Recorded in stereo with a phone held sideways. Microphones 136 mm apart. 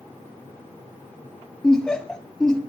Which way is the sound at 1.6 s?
5° left (ahead or behind).